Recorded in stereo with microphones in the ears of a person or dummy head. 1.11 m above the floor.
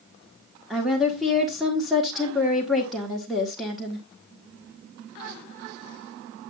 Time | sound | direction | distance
0.7 | a woman speaking | 5° right (ahead or behind) | 1.4 m